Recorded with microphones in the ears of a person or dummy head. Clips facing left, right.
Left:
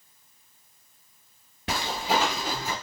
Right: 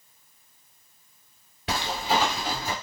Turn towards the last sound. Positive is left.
turn(degrees=-5)  # may be behind; listen again after turning